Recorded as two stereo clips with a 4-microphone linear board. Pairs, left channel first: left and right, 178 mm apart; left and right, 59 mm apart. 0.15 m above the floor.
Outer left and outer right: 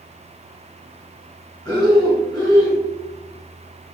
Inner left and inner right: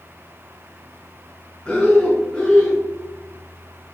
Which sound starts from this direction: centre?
Breathing, at 1.6 s.